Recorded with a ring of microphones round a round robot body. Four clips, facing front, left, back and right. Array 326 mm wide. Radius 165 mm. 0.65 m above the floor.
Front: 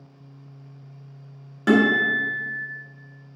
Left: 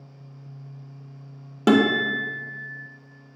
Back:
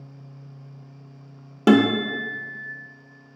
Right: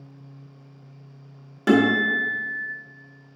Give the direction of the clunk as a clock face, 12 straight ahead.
No clunk in this recording.